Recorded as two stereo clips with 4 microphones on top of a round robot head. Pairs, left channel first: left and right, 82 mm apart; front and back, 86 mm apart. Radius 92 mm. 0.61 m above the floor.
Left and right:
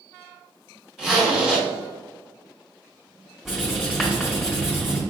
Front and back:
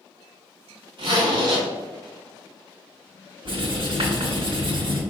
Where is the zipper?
175° right, 1.8 m.